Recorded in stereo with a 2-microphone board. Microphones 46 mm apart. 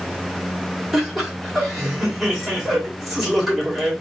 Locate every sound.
0.9 s laughter: 5° right (ahead or behind), 2 m